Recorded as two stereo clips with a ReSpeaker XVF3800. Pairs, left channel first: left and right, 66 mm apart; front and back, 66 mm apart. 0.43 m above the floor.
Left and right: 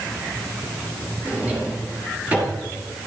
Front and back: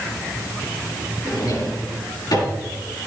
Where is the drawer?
20° right, 5.5 m.